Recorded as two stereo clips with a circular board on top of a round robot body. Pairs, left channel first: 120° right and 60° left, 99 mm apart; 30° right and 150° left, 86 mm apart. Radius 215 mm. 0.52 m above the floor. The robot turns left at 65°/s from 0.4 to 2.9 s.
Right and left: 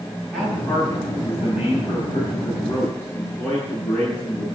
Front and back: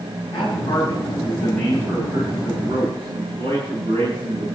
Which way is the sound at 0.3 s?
30° right.